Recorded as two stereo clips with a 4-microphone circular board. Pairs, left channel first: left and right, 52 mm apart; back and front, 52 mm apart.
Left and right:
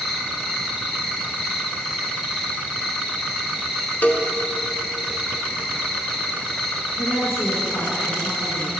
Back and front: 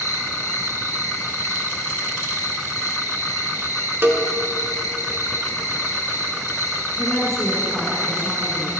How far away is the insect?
About 0.8 m.